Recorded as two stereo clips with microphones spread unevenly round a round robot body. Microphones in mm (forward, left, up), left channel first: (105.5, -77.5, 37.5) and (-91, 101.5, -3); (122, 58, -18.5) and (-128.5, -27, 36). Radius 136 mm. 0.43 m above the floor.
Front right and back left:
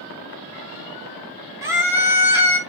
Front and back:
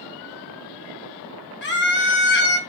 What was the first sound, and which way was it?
A scream, 60° left.